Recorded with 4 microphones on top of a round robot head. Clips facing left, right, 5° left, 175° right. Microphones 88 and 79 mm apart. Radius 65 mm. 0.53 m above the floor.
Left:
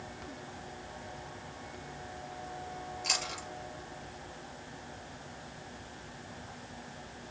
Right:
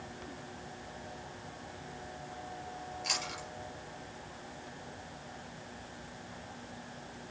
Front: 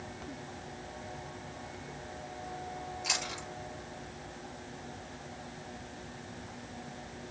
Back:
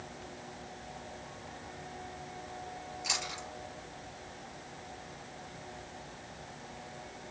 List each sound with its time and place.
3.0 s chewing: 50° left, 3.5 m